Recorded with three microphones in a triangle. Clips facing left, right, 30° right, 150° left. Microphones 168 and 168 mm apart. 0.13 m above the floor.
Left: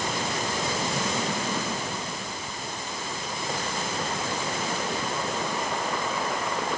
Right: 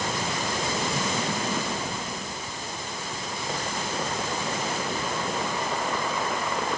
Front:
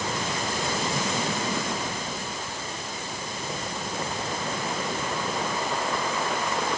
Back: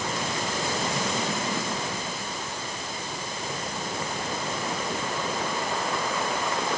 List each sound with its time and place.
Only background noise.